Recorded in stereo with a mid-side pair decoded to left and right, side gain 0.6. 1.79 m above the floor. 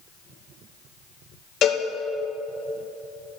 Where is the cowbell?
55° left, 2 m.